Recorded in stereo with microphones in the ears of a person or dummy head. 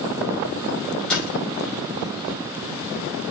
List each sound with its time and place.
1.1 s a door slam: centre (ahead or behind), 5.5 m